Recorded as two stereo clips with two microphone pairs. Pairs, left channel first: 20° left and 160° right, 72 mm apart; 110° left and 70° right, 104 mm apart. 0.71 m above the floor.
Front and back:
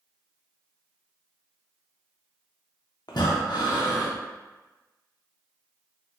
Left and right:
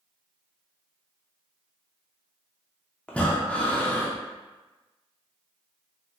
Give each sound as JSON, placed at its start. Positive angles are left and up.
{"t": 3.1, "sound": "breathing", "azimuth_deg": 30, "distance_m": 0.6}